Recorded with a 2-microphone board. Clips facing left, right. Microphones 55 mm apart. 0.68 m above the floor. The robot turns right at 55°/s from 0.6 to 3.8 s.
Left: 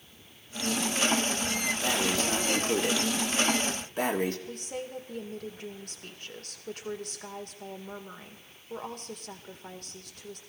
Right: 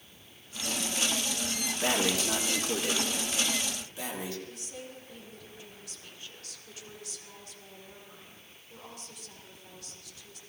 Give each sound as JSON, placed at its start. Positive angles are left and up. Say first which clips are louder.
{"t": 1.8, "sound": "breathing", "louder": "right 2 dB", "azimuth_deg": -20, "distance_m": 1.6}
{"t": 4.5, "sound": "a woman speaking", "louder": "left 7 dB", "side_deg": 55, "distance_m": 2.0}